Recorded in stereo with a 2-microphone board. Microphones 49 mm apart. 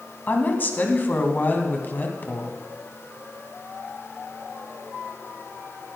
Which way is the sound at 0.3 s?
40° left (ahead or behind).